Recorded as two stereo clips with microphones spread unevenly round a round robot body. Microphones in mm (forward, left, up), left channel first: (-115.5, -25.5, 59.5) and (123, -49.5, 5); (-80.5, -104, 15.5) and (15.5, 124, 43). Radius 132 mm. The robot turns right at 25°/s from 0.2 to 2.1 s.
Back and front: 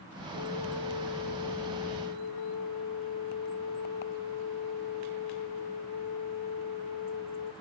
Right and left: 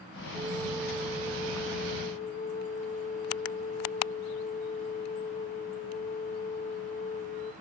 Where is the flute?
145° left, 0.9 m; by 7.5 s 170° right, 0.9 m.